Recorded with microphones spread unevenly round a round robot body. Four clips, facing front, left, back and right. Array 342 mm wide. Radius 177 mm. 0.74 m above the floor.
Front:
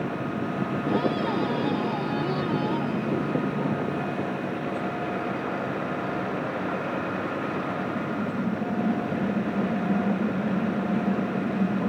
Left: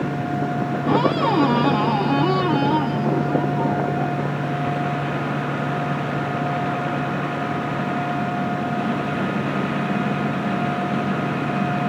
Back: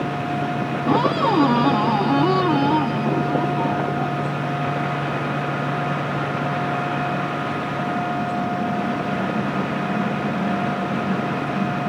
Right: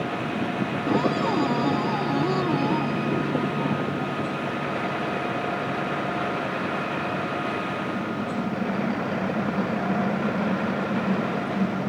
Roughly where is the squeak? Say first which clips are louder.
Left 5 dB, back 8 dB; behind.